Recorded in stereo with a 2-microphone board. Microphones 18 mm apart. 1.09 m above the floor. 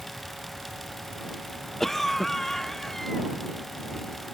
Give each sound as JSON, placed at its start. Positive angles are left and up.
{"t": 1.8, "sound": "a cough", "side_deg": 10}